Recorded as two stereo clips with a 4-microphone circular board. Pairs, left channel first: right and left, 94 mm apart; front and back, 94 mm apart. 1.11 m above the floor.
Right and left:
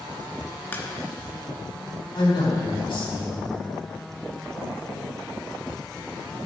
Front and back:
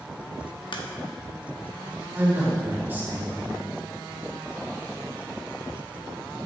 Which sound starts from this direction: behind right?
A man speaking, at 2.1 s.